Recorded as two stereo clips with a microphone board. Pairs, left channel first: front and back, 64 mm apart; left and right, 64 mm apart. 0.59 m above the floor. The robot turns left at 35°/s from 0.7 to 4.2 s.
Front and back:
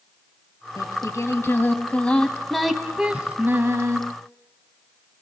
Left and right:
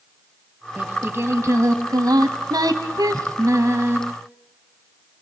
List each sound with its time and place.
0.8 s singing: 25° right, 1.6 m; by 4.0 s 140° right, 1.6 m